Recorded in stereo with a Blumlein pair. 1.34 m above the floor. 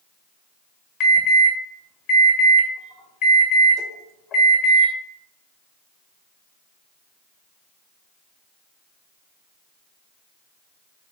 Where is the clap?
No clap in this recording.